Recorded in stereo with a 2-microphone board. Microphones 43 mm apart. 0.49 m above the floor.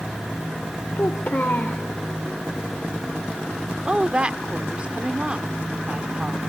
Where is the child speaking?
50° left (ahead or behind), 1.1 m.